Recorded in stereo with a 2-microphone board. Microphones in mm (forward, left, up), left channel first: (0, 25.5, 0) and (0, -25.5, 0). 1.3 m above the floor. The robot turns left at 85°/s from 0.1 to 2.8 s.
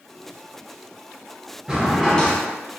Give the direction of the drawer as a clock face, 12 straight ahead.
5 o'clock.